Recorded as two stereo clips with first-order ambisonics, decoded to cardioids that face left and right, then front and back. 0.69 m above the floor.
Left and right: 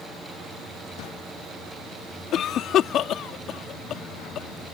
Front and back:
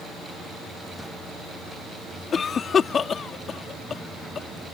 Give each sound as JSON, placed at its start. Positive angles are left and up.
{"t": 2.3, "sound": "a cough", "azimuth_deg": 60}